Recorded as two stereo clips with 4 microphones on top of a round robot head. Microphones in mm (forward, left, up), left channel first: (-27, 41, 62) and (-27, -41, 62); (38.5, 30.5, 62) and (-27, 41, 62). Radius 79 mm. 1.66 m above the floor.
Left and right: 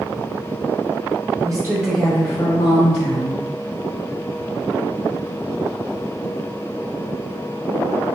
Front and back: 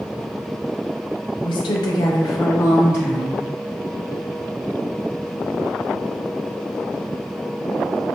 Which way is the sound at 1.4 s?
40° right.